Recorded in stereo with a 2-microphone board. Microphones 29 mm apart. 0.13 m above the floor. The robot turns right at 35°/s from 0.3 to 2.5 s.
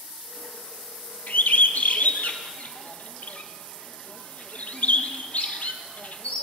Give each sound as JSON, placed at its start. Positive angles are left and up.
{"t": 1.3, "sound": "a bird", "side_deg": 70, "distance_m": 1.0}